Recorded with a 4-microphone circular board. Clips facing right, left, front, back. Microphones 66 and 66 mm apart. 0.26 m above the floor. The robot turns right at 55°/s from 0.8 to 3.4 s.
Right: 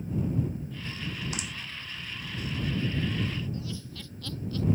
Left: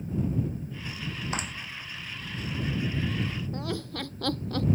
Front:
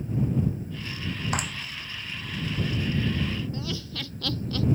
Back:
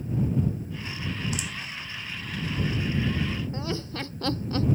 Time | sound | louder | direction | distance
1.3 | a clap | left 4 dB, front 4 dB | 35° left | ?
3.5 | laughter | left 5 dB, back 2 dB | 120° left | ?